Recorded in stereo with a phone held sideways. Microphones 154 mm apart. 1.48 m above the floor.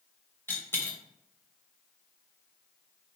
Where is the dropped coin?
15° left (ahead or behind), 2.5 m.